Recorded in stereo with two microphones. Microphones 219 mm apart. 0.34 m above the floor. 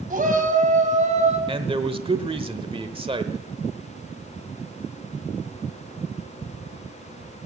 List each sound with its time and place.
0.1 s a shout: 40° right (ahead or behind), 2.5 m; by 1.4 s 30° right (ahead or behind), 3 m
1.5 s a man speaking: 25° right (ahead or behind), 0.9 m